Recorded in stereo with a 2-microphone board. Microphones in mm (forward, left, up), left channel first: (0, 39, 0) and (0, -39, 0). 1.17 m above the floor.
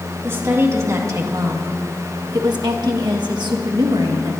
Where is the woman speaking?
35° right (ahead or behind), 2 m; by 4.3 s 70° right (ahead or behind), 1.8 m.